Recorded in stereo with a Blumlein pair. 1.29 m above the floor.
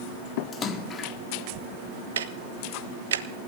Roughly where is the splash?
Ahead left.